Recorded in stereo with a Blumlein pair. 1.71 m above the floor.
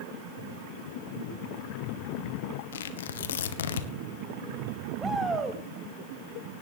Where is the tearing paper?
60° left, 1.7 m.